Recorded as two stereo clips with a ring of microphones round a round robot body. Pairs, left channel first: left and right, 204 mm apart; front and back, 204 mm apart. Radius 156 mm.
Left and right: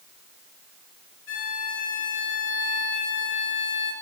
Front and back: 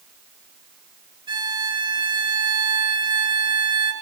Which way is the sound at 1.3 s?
115° left.